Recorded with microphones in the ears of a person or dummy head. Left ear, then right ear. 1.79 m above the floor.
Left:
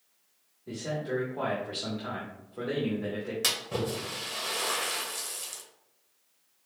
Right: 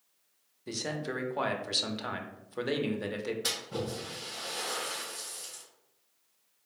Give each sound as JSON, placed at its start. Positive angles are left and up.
{"t": 0.7, "sound": "a man speaking", "side_deg": -80, "distance_m": 0.8}
{"t": 3.4, "sound": "a splash", "side_deg": 45, "distance_m": 1.3}